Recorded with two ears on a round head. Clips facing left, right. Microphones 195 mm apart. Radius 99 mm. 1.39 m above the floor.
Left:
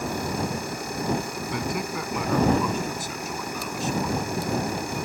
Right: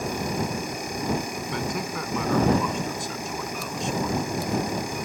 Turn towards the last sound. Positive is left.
turn(degrees=0)  # may be behind; listen again after turning